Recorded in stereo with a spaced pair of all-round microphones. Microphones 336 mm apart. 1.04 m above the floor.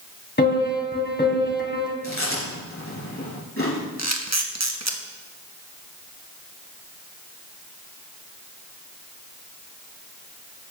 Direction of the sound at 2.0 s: 40° left (ahead or behind).